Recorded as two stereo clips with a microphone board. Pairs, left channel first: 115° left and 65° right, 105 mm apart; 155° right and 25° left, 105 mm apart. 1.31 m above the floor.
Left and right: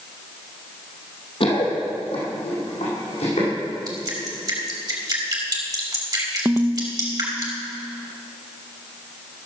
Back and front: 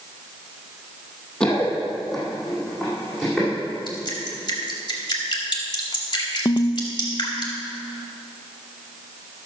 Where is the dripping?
115° right, 2 m.